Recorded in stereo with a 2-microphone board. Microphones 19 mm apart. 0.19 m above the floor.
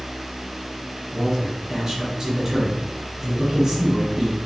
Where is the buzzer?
No buzzer in this recording.